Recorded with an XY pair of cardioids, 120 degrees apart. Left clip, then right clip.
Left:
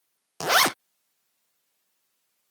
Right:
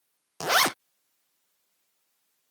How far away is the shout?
No shout in this recording.